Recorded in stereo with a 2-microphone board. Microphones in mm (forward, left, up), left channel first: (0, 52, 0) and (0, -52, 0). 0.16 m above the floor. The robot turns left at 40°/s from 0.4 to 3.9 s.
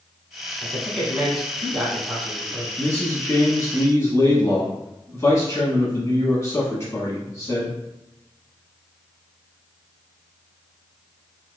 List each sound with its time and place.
0.6 s a man speaking: 25° left, 1.3 m; by 2.7 s 55° right, 1.3 m
2.8 s a man speaking: 25° left (ahead or behind), 1.1 m; by 7.8 s 30° left (ahead or behind), 1.1 m